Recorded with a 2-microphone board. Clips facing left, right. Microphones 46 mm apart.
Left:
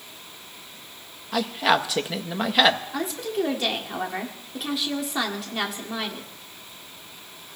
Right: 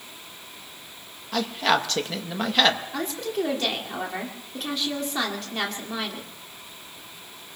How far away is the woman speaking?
About 2.5 m.